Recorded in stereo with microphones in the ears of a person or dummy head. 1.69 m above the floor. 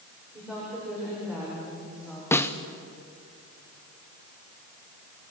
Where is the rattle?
No rattle in this recording.